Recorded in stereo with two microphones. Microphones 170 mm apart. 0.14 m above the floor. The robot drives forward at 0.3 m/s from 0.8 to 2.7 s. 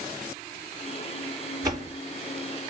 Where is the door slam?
20° right (ahead or behind), 1.8 m.